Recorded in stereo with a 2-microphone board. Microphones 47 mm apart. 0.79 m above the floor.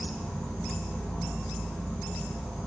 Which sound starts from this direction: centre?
An insect, at 0.0 s.